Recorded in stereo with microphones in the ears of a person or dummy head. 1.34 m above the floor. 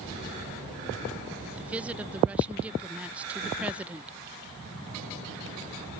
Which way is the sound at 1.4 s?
10° right (ahead or behind).